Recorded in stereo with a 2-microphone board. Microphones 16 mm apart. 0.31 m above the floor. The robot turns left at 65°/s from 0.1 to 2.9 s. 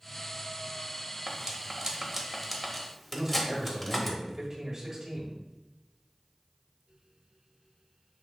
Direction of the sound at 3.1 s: 40° right (ahead or behind).